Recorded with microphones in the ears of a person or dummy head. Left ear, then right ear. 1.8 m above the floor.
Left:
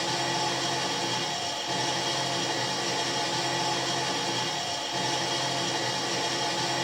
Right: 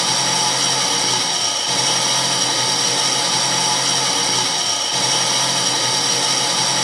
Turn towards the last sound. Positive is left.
turn(degrees=-55)  # may be behind; listen again after turning